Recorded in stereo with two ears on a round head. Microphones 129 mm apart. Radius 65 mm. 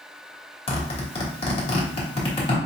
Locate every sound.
0.7 s a zipper: 40° left (ahead or behind), 1.5 m